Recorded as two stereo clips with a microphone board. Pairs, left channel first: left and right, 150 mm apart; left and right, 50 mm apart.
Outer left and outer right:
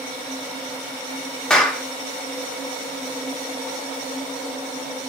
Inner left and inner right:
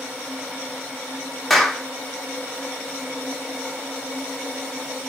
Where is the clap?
5° left (ahead or behind), 0.7 m.